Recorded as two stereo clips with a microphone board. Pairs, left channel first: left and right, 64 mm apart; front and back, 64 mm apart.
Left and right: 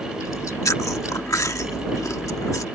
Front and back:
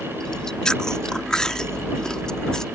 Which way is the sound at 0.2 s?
75° left.